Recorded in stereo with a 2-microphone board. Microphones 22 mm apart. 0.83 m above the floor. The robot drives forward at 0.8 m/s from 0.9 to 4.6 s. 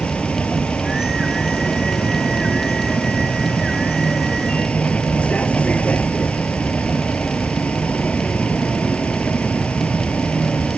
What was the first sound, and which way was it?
A vehicle, 75° left (ahead or behind).